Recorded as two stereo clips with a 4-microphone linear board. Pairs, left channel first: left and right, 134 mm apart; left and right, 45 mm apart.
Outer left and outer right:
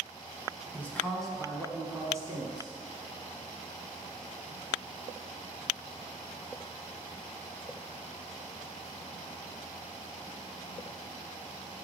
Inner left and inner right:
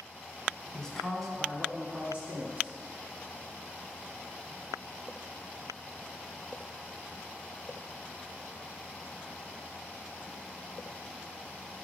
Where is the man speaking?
15° left (ahead or behind), 1.2 m; by 2.8 s 40° right (ahead or behind), 1.3 m.